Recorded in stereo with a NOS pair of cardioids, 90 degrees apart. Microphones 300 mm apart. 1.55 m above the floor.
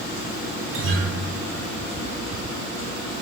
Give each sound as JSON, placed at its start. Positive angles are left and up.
{"t": 0.7, "sound": "a guitar", "azimuth_deg": -45, "distance_m": 0.8}